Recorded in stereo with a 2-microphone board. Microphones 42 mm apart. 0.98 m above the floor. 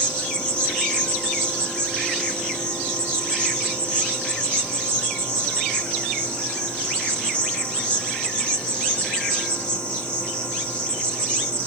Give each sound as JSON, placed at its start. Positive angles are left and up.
{"t": 0.0, "sound": "an insect", "side_deg": 25, "distance_m": 1.6}